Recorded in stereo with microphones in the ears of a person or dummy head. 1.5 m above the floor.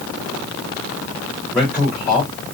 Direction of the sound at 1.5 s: 15° left (ahead or behind).